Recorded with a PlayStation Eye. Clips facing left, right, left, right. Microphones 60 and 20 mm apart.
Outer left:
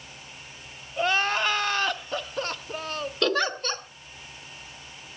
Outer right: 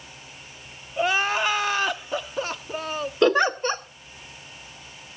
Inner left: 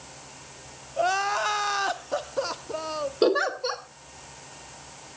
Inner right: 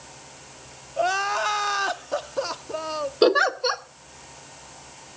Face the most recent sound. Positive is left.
turn(degrees=-20)  # may be behind; listen again after turning